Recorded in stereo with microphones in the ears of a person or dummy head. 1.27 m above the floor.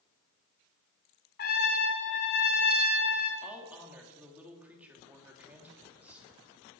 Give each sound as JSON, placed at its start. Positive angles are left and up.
{"t": 1.4, "sound": "a trumpet", "side_deg": 50, "distance_m": 2.5}
{"t": 3.4, "sound": "a woman speaking", "side_deg": -5, "distance_m": 2.5}